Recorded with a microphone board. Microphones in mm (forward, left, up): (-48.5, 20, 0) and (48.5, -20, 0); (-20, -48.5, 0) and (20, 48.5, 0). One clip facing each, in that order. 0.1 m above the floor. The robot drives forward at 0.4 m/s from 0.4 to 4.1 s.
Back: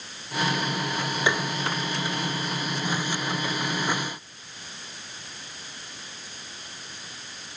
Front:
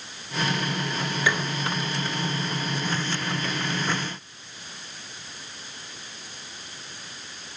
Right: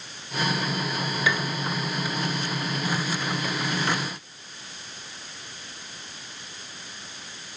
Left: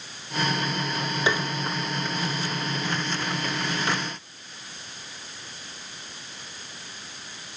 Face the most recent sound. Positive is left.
turn(degrees=160)